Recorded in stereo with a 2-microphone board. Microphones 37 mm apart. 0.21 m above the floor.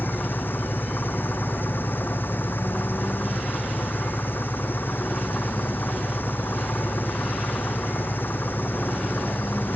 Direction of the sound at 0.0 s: 75° left (ahead or behind).